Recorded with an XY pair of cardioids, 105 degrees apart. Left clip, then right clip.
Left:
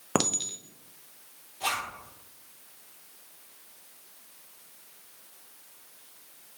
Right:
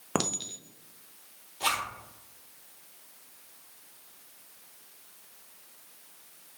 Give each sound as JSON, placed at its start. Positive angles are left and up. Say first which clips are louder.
{"t": 0.1, "sound": "a clink", "louder": "left 3 dB", "azimuth_deg": 15, "distance_m": 0.5}
{"t": 1.6, "sound": "a zipper", "louder": "right 1 dB", "azimuth_deg": -45, "distance_m": 1.9}